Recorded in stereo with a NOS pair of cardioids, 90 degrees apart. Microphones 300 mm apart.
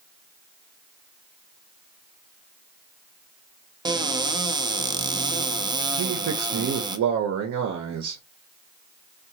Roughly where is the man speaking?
Ahead right.